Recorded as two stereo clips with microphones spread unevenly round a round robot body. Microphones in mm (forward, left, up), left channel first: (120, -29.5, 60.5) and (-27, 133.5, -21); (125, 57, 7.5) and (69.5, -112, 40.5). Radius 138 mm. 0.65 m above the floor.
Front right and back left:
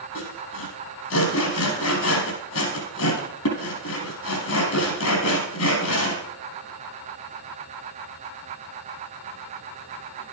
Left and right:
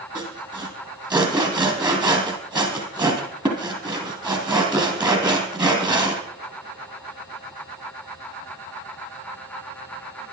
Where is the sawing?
45° right, 4 m.